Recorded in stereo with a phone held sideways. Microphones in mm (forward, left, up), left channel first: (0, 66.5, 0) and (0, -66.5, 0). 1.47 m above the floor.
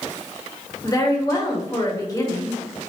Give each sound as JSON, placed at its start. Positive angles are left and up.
{"t": 0.8, "sound": "a woman speaking", "side_deg": 25, "distance_m": 0.9}